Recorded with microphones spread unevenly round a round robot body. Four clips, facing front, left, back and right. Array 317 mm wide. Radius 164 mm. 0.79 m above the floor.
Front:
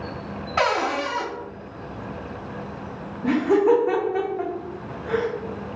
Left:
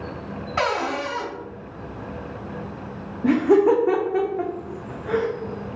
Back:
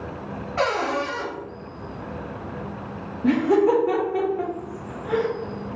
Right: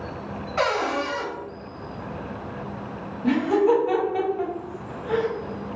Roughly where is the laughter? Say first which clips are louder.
Left 3 dB, even; left.